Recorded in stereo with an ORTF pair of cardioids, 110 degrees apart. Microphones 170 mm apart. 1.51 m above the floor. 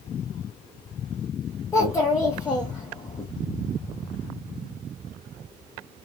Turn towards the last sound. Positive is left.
turn(degrees=20)